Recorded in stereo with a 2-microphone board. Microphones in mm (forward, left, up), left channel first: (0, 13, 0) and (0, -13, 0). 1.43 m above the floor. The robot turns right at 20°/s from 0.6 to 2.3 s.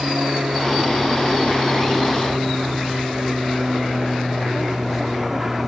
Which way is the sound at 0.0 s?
45° right.